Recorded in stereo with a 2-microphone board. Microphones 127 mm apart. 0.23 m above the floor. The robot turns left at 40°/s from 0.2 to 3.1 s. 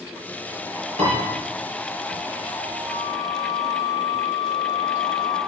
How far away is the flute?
About 4 m.